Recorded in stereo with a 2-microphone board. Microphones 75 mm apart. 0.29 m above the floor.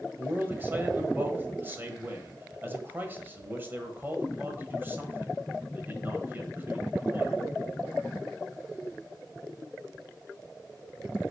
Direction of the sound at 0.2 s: 25° right (ahead or behind).